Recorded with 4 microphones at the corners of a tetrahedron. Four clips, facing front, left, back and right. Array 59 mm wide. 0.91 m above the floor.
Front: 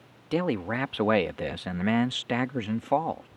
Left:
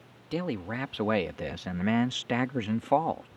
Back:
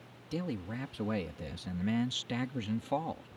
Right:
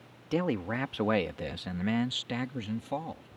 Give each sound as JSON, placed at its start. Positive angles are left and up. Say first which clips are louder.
{"t": 0.3, "sound": "a man speaking", "louder": "right 2 dB, front 10 dB", "azimuth_deg": -20}